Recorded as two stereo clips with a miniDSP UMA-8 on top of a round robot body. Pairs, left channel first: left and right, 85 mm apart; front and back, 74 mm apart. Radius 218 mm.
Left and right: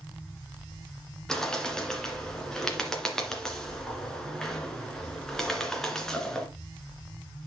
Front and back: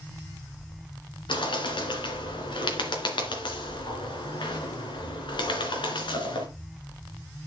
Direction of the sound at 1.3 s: 5° left.